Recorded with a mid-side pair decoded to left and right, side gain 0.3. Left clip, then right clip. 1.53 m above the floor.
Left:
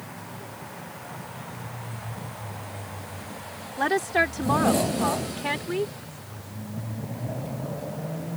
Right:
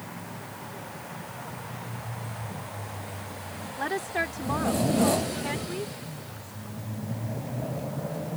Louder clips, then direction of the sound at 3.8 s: Left 6 dB; 60° left.